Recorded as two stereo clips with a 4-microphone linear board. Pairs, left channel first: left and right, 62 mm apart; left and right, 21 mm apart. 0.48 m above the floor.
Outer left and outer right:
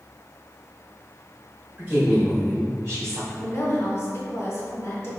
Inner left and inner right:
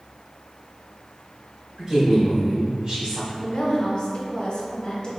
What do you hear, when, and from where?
1.8 s a woman speaking: 30° right (ahead or behind), 1.7 m; by 3.2 s 45° right (ahead or behind), 2.5 m
3.3 s a woman speaking: 45° left (ahead or behind), 1.0 m